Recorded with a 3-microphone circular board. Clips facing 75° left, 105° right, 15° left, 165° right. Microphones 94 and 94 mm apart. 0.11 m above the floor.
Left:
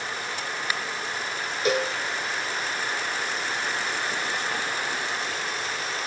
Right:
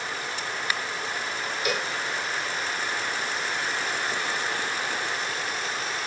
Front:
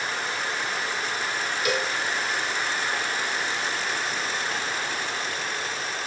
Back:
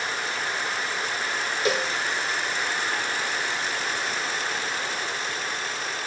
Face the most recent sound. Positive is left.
turn(degrees=135)